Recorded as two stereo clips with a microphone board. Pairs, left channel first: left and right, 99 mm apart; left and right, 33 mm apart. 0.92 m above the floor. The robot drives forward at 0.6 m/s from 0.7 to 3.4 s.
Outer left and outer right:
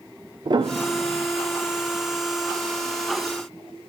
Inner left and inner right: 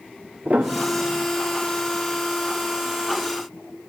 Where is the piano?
50° right (ahead or behind), 0.6 m; by 1.3 s 80° right, 0.5 m.